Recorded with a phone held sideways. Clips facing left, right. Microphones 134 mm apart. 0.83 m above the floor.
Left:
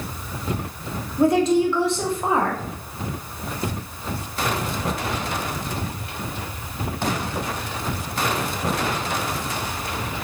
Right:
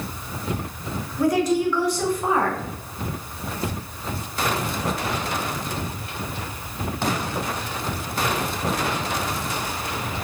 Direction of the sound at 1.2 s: 25° left (ahead or behind).